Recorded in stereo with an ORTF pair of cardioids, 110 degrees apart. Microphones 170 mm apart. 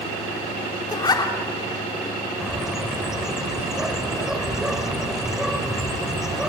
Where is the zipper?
25° left, 3 m.